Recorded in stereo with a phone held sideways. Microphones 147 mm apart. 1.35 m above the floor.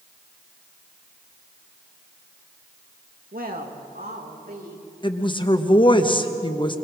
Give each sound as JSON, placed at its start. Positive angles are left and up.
{"t": 3.3, "sound": "a woman speaking", "side_deg": -80, "distance_m": 2.0}
{"t": 5.0, "sound": "a woman speaking", "side_deg": 35, "distance_m": 1.3}